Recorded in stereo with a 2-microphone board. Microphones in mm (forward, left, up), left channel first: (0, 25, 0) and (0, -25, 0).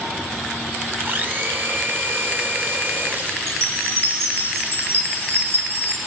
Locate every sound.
1.1 s a blender: 45° right (ahead or behind), 2.5 m
3.5 s a chime: 65° right (ahead or behind), 7 m